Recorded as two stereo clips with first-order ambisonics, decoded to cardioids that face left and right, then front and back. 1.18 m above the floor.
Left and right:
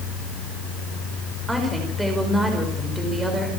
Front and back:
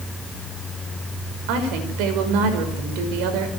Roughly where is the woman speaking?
Behind.